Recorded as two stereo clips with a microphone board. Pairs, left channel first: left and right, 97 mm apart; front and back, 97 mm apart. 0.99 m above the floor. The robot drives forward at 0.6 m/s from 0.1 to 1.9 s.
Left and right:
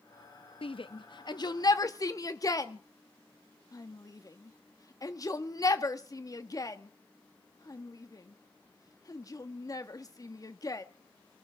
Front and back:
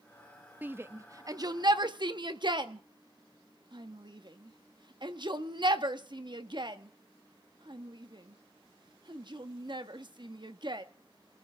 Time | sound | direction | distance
0.6 | a shout | 110° left | 0.9 m